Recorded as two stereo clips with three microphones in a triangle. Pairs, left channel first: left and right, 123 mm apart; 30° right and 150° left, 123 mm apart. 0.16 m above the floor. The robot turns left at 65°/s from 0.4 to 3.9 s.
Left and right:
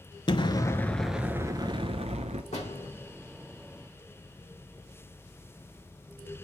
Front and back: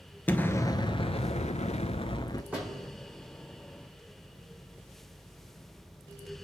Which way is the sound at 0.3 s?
45° left.